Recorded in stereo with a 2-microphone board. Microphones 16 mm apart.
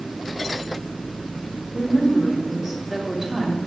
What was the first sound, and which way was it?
A woman speaking, 35° right (ahead or behind).